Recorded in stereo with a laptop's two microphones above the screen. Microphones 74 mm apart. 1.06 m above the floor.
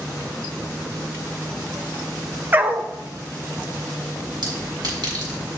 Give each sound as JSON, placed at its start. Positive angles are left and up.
{"t": 2.5, "sound": "a dog barking", "side_deg": -25, "distance_m": 0.9}
{"t": 4.4, "sound": "a clink", "side_deg": -75, "distance_m": 4.5}